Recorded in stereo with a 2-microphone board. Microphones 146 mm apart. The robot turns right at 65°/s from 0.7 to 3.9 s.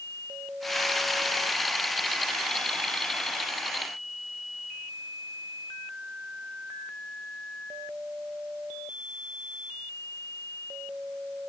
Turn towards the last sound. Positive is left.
No sound to turn to.